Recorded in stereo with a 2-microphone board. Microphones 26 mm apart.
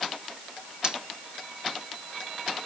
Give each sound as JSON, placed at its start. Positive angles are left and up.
{"t": 0.8, "sound": "cutlery clinking", "side_deg": -35}